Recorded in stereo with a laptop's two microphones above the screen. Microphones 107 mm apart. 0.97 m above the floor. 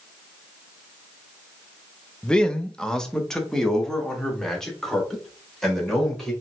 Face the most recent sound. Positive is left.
turn(degrees=5)  # may be behind; listen again after turning